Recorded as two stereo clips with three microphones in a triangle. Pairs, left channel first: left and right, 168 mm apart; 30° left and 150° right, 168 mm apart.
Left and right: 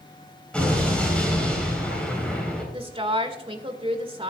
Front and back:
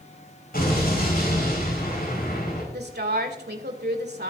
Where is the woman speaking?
145° right, 2 m.